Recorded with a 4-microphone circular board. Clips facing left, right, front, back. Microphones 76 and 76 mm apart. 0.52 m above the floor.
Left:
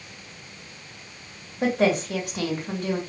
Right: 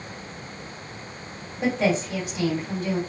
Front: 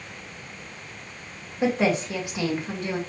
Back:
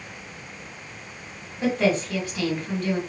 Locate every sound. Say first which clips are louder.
1.6 s a woman speaking: left 1 dB, even; 70° left, 2 m